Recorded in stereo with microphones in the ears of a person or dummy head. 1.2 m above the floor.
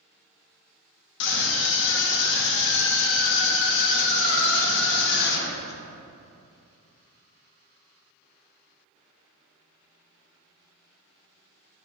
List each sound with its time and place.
1.2 s a scream: 65° left (ahead or behind), 1.6 m